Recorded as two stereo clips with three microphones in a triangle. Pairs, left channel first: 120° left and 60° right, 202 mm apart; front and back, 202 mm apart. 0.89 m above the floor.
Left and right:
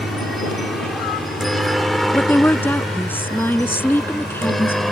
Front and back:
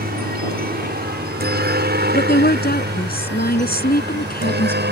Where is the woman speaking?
40° left.